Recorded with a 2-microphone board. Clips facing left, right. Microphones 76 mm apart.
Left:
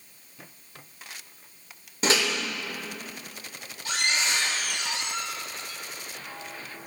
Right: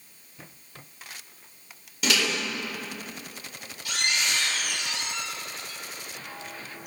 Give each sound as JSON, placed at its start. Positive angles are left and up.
{"t": 2.0, "sound": "a microwave", "side_deg": 35, "distance_m": 1.7}